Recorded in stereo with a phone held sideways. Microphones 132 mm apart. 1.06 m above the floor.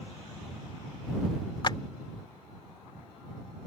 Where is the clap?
40° left (ahead or behind).